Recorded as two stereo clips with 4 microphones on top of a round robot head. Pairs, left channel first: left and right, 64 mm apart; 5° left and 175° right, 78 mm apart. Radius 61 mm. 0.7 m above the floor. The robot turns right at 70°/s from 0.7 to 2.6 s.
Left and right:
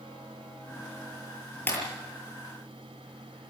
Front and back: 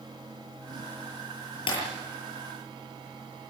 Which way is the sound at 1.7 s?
30° left.